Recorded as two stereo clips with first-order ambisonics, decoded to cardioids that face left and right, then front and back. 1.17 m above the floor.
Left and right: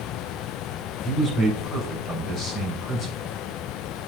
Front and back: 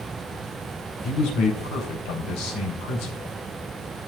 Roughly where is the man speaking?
Ahead left.